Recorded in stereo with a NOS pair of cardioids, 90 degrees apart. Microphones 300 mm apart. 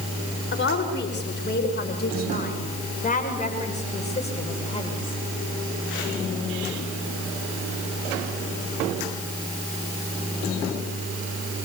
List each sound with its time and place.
0.5 s a woman speaking: 40° left, 6 m; by 5.2 s 15° left, 7 m